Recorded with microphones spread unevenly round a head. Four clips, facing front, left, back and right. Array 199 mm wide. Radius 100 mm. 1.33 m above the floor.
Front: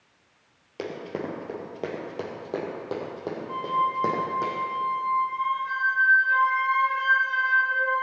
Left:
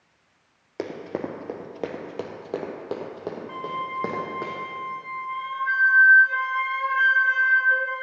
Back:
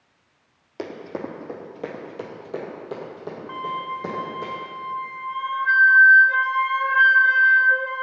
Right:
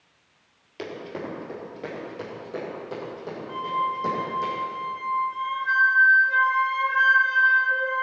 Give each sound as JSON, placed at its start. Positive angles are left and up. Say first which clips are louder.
{"t": 0.8, "sound": "running footsteps", "louder": "left 3 dB, back 1 dB", "azimuth_deg": 80, "distance_m": 1.6}
{"t": 3.5, "sound": "a flute", "louder": "right 7 dB, front 4 dB", "azimuth_deg": 180, "distance_m": 0.7}